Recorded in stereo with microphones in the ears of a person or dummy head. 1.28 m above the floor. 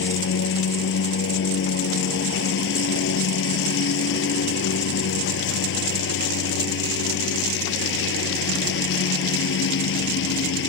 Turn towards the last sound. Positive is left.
turn(degrees=60)  # may be behind; listen again after turning